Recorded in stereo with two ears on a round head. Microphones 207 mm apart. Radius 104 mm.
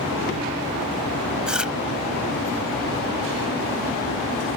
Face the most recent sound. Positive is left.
turn(degrees=-5)  # may be behind; listen again after turning